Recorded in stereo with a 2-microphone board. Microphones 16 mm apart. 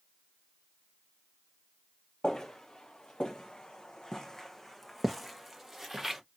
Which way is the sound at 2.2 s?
80° left.